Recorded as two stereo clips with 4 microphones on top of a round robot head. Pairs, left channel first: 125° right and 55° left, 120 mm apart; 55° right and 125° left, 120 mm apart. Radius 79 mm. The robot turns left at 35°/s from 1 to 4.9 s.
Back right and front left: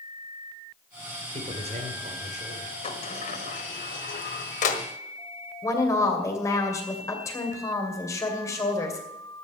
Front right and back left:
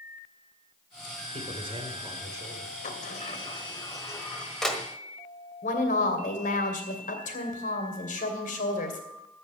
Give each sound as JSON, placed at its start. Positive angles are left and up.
{"t": 1.3, "sound": "a man speaking", "azimuth_deg": 95, "distance_m": 2.5}
{"t": 2.8, "sound": "a sliding door", "azimuth_deg": -80, "distance_m": 1.3}
{"t": 5.6, "sound": "a woman speaking", "azimuth_deg": -60, "distance_m": 2.5}